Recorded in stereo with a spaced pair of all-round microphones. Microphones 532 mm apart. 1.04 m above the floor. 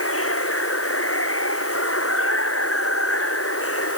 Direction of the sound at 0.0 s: 25° left (ahead or behind).